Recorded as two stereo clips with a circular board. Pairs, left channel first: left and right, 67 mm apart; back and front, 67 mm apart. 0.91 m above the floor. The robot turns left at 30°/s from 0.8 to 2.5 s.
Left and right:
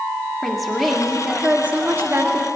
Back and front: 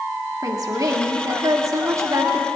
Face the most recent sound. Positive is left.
turn(degrees=-50)